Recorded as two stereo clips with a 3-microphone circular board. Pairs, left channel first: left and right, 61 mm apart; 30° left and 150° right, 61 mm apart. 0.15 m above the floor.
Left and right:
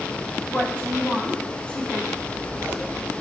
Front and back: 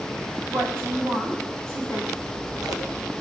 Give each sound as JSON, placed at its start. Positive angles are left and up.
{"t": 0.5, "sound": "a woman speaking", "azimuth_deg": 165, "distance_m": 8.0}
{"t": 2.2, "sound": "scissors", "azimuth_deg": -145, "distance_m": 4.0}